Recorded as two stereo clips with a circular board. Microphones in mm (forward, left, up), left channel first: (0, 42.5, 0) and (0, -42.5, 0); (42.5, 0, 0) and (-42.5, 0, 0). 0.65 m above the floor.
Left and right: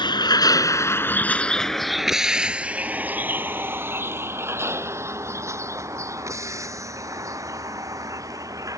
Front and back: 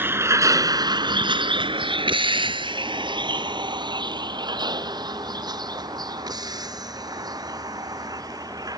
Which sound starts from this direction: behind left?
A vehicle, at 0.0 s.